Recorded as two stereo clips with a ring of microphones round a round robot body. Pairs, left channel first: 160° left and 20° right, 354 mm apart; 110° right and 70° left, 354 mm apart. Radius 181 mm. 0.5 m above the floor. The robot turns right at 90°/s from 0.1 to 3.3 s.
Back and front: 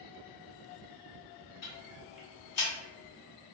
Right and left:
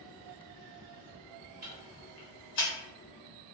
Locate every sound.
1.6 s ticking: 120° left, 1.6 m; by 2.7 s 145° right, 1.6 m